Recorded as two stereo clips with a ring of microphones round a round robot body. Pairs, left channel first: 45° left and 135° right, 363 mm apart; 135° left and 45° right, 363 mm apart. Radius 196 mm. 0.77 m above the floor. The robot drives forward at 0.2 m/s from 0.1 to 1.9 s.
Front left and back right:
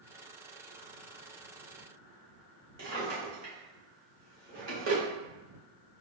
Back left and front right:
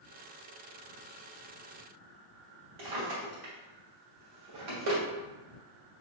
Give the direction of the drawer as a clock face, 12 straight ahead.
3 o'clock.